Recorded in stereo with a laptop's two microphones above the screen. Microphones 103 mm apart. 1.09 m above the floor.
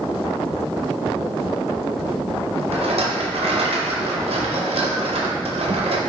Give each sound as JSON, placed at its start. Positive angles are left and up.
{"t": 2.7, "sound": "a rattle", "side_deg": -70, "distance_m": 0.5}